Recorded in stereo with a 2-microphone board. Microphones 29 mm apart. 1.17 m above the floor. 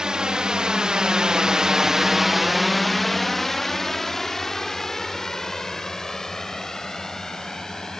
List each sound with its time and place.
0.0 s a drone: 25° right (ahead or behind); by 8.0 s 15° left (ahead or behind)